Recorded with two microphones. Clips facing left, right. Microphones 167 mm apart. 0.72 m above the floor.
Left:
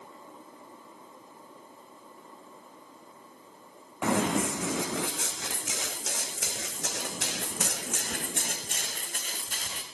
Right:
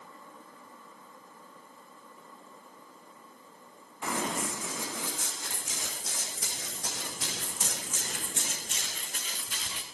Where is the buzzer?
I don't hear a buzzer.